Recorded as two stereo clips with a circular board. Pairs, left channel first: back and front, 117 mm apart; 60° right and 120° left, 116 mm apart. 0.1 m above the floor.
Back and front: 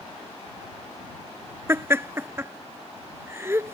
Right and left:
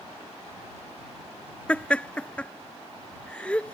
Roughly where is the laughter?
Ahead.